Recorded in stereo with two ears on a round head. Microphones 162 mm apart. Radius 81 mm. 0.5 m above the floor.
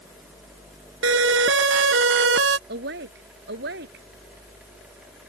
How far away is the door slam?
No door slam in this recording.